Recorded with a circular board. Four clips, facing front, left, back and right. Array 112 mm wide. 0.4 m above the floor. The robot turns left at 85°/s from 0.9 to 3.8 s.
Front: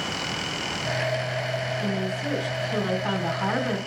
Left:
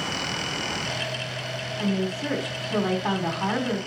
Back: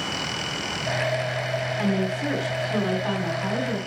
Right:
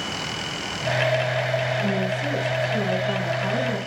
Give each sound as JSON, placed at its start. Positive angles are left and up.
{"t": 1.8, "sound": "a woman speaking", "azimuth_deg": -165, "distance_m": 2.5}